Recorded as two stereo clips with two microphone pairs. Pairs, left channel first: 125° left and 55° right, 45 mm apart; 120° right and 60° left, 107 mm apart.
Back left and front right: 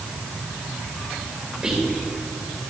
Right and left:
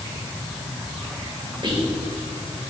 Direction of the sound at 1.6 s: 20° left.